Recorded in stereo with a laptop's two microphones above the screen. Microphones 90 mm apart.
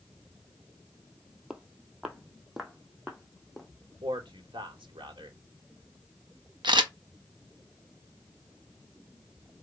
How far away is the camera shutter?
About 1.4 m.